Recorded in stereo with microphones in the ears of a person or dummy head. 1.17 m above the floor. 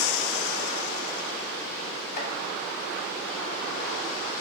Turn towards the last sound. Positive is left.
turn(degrees=60)  # may be behind; listen again after turning